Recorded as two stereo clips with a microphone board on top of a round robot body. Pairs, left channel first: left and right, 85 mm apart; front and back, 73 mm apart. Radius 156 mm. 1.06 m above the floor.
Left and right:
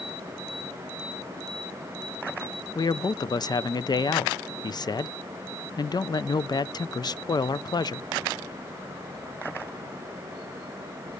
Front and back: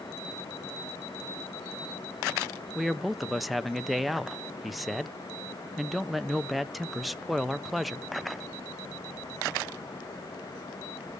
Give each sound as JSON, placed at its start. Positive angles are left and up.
{"t": 2.8, "sound": "a man speaking", "azimuth_deg": 95, "distance_m": 0.6}